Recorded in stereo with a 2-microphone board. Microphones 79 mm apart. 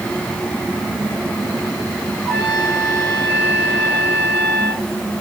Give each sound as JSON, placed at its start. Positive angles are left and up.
{"t": 2.2, "sound": "a trumpet", "side_deg": 10, "distance_m": 9.0}